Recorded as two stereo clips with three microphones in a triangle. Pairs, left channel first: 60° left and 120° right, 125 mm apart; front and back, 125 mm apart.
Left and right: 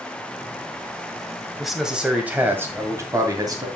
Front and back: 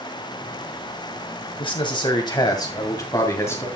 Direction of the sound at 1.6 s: 30° right.